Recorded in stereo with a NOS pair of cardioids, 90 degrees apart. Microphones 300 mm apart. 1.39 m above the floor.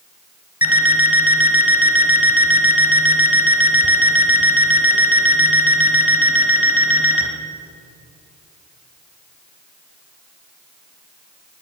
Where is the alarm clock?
5° right, 4 m.